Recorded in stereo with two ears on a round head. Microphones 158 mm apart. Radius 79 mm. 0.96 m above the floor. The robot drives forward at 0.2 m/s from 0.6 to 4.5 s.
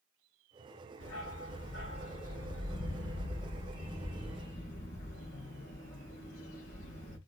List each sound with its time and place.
1.0 s a dog barking: 80° left, 3 m; by 7.2 s 70° left (ahead or behind), 3 m